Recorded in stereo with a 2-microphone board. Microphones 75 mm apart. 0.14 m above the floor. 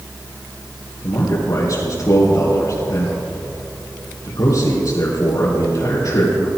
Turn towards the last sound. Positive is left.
turn(degrees=55)  # may be behind; listen again after turning